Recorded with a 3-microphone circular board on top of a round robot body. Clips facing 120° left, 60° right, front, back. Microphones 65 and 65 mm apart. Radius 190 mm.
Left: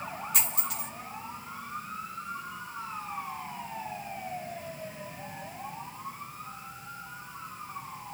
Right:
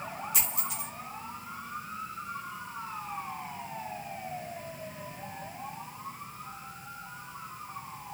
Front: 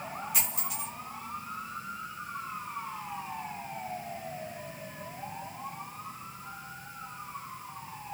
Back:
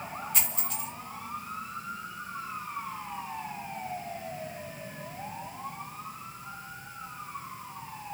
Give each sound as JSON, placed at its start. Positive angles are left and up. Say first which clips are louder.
{"t": 0.3, "sound": "a dropped coin", "louder": "left 1 dB, even", "azimuth_deg": 80, "distance_m": 1.6}